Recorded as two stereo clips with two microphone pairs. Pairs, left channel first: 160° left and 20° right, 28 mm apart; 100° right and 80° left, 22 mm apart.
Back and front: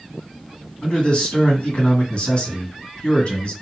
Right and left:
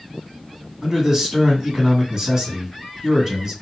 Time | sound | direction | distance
0.8 | a man speaking | 130° left | 1.7 m